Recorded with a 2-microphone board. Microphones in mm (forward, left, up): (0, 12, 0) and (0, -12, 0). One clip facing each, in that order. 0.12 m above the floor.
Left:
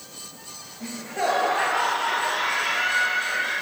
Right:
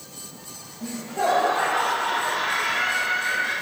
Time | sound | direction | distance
0.8 | laughter | 50° left (ahead or behind) | 2 m